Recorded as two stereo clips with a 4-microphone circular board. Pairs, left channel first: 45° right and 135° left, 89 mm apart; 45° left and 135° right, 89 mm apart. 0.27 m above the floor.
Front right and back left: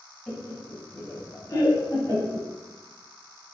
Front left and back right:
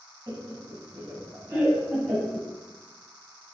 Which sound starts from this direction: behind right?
Laughter, at 0.3 s.